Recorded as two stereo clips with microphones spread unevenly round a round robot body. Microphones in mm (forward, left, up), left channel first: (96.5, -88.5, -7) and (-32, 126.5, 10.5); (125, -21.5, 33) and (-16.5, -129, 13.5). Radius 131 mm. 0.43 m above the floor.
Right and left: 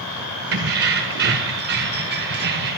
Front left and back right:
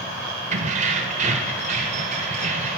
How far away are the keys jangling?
About 0.8 m.